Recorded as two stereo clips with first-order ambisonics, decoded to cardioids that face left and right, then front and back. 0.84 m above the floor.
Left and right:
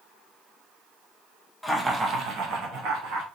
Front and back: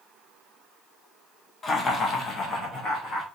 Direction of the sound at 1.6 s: 15° left.